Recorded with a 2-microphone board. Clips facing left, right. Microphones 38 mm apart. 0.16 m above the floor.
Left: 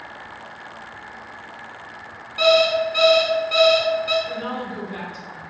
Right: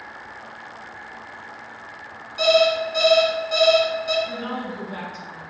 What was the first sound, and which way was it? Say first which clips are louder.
An alarm clock: left 1 dB; 35° left (ahead or behind).